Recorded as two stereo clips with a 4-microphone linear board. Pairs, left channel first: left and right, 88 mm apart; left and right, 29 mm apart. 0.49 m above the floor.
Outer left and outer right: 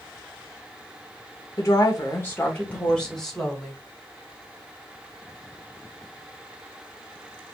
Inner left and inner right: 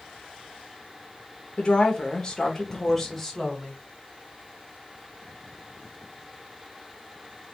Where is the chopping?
I don't hear chopping.